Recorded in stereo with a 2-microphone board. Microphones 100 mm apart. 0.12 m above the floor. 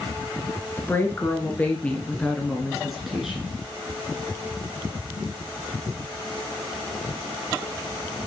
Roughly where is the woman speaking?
Left.